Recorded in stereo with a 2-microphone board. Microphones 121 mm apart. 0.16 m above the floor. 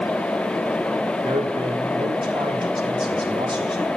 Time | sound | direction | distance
1.2 | a man speaking | 40° right (ahead or behind) | 5.5 m